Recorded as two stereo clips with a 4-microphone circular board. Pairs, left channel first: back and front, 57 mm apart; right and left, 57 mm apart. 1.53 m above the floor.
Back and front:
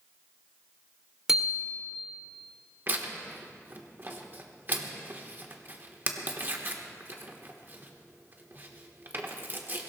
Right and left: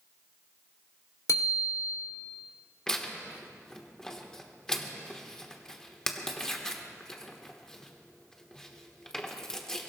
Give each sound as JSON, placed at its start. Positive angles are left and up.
{"t": 1.3, "sound": "a bicycle bell", "azimuth_deg": -85, "distance_m": 3.5}
{"t": 2.9, "sound": "tearing paper", "azimuth_deg": -15, "distance_m": 1.4}